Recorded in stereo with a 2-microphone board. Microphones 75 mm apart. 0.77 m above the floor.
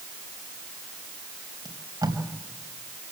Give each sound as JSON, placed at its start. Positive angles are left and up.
{"t": 1.6, "sound": "tape being pulled", "side_deg": -65, "distance_m": 4.0}